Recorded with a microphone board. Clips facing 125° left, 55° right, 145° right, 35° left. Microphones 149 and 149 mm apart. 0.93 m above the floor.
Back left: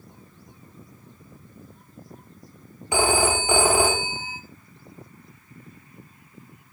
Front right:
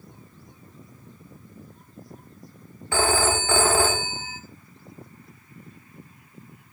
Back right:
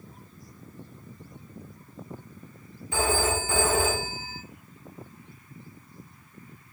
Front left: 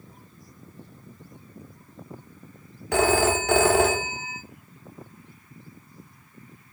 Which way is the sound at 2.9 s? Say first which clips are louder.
Back left 1 dB, front left 6 dB; 50° left.